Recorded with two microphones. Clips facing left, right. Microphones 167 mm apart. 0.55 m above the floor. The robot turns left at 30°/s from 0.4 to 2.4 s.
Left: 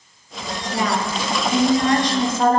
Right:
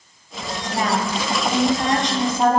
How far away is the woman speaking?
About 1.5 m.